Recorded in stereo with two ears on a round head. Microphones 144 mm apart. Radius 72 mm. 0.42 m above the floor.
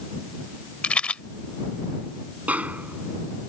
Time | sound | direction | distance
0.8 | a rattle | 10° left (ahead or behind) | ?
2.5 | a snare drum | 10° right (ahead or behind) | ?